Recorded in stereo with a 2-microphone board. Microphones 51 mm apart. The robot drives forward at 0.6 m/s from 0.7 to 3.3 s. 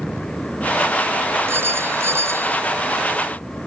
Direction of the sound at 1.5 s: 60° right (ahead or behind).